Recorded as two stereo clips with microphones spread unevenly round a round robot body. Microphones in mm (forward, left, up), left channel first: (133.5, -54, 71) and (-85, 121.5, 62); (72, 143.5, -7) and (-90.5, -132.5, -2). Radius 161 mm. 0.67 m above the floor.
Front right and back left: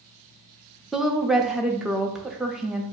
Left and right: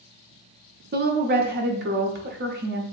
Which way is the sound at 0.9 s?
135° right.